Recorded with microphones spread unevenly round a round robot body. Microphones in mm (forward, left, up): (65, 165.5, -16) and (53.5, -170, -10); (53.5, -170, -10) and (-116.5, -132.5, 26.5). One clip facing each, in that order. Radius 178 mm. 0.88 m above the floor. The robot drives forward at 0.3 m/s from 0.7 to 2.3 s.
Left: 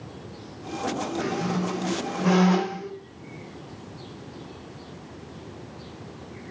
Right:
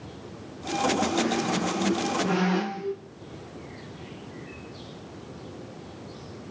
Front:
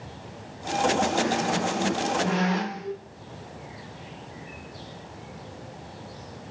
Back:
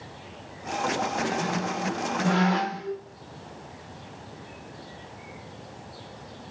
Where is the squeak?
100° left, 7 m.